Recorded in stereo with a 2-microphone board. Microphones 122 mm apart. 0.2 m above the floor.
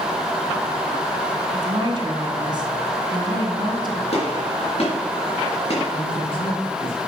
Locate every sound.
1.5 s a woman speaking: 40° right (ahead or behind), 1.7 m
4.1 s a gunshot: 60° left (ahead or behind), 3.5 m
5.9 s a man speaking: 45° left (ahead or behind), 3.5 m